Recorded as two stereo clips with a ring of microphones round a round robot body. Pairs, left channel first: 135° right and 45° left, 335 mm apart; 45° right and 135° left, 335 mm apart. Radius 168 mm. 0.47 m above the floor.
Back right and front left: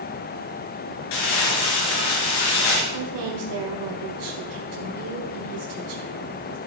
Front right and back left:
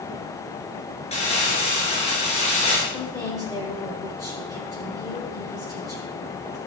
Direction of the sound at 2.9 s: 35° left.